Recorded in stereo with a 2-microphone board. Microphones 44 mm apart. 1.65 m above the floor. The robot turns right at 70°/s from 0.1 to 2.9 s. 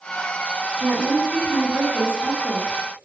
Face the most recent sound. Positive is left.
turn(degrees=15)